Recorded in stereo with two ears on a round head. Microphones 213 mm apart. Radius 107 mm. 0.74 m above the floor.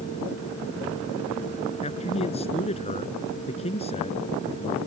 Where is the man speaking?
25° left (ahead or behind).